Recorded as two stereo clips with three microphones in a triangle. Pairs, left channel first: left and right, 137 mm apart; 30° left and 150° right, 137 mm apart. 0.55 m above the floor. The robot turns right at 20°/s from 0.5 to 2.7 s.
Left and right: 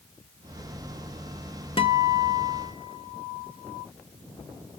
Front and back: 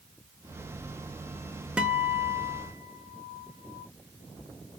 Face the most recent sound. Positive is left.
turn(degrees=150)